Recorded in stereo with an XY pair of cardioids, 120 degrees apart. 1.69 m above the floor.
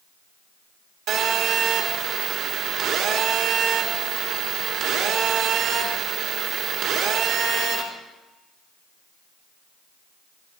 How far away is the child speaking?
I don't hear a child speaking.